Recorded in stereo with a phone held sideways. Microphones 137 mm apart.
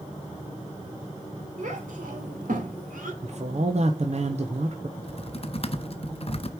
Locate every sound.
1.6 s a child speaking: 70° right (ahead or behind), 3 m; by 3.1 s 85° right, 3 m
3.2 s a man speaking: 55° right (ahead or behind), 0.9 m
5.0 s typing on a keyboard: 45° left (ahead or behind), 0.7 m